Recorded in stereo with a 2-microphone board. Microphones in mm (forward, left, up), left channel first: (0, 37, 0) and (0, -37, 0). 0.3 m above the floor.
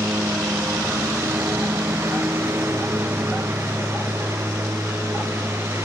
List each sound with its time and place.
0.0 s a lawn mower: 35° right (ahead or behind)